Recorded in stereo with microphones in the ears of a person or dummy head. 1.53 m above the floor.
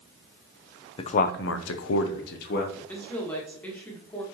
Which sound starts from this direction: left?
A man speaking, at 1.0 s.